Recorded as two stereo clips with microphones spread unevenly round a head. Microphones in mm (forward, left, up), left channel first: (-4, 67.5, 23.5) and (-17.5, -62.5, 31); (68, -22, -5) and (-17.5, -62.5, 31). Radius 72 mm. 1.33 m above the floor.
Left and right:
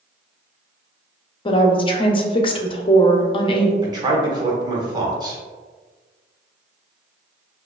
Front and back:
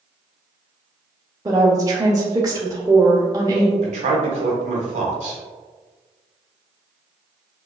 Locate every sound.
1.4 s a woman speaking: 135° left, 0.6 m
3.8 s a man speaking: 155° right, 1.0 m